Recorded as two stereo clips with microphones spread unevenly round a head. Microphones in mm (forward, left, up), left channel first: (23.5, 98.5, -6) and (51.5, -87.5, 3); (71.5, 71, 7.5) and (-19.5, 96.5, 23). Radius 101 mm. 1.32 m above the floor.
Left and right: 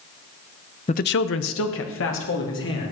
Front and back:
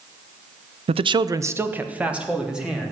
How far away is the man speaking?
About 0.6 m.